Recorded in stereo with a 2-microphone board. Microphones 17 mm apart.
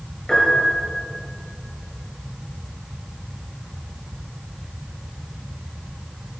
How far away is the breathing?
No breathing in this recording.